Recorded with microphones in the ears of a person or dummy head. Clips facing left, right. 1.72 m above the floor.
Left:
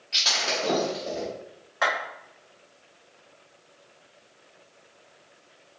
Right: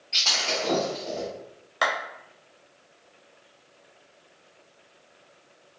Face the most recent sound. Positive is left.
turn(degrees=-45)  # may be behind; listen again after turning